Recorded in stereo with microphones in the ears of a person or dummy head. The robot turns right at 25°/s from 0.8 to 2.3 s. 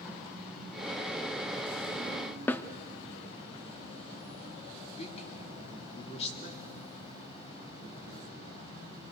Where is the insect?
Straight ahead, 6.5 m; by 9.1 s 35° left, 6.5 m.